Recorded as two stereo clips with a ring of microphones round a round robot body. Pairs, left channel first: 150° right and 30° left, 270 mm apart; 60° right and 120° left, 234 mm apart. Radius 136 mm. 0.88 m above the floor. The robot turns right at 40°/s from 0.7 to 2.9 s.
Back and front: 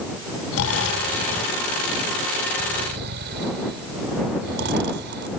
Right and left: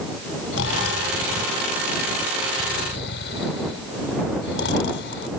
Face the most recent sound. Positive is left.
turn(degrees=-20)